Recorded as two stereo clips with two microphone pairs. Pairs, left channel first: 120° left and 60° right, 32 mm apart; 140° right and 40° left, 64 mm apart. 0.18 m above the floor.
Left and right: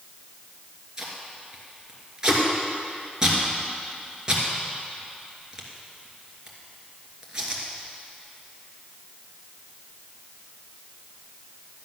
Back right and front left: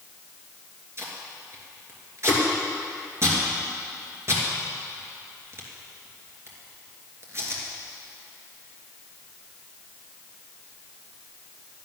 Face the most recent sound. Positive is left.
turn(degrees=5)